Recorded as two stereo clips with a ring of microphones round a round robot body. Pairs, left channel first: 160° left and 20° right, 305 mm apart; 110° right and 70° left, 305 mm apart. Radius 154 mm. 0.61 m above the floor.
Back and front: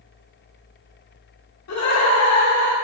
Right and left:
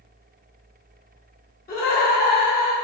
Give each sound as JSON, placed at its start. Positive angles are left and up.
{"t": 1.7, "sound": "laughter", "azimuth_deg": -170, "distance_m": 1.4}